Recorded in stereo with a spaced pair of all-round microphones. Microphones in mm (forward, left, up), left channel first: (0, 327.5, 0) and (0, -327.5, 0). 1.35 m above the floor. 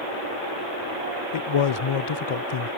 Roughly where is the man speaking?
Left.